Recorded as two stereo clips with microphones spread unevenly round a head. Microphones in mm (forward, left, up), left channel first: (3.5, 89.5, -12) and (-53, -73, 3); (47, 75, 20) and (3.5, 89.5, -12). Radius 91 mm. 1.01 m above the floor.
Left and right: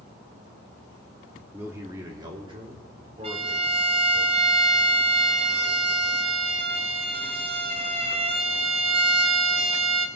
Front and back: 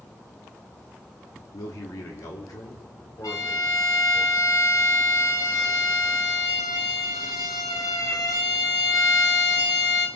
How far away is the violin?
About 1.1 m.